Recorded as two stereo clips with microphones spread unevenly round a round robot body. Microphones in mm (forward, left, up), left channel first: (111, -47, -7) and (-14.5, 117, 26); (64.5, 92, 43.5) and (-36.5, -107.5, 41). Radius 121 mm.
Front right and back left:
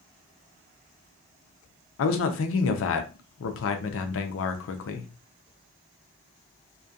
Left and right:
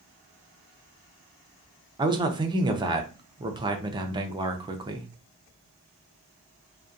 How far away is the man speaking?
About 0.5 m.